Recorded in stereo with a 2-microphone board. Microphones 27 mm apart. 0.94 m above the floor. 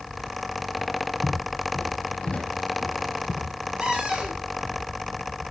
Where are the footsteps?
60° left (ahead or behind), 1.9 m; by 3.5 s 40° left (ahead or behind), 3 m.